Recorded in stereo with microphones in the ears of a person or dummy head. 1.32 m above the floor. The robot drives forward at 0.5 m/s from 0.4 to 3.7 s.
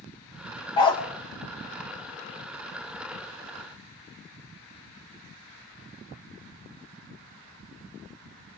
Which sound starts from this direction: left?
A dog barking, at 0.8 s.